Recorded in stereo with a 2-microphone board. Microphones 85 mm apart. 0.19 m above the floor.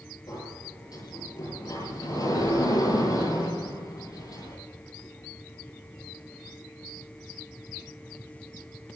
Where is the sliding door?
50° left (ahead or behind), 8.5 m.